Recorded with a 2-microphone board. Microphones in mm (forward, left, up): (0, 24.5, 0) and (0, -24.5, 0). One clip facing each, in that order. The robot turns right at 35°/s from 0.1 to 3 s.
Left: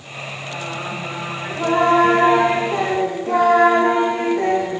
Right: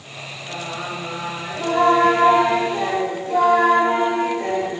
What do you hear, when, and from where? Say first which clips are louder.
0.5 s singing: even; 10° right, 6.5 m; by 4.8 s 75° left, 6.5 m